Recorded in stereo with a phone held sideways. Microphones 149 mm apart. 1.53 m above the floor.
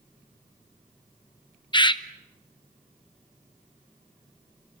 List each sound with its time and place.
1.7 s a bird: 35° left (ahead or behind), 0.7 m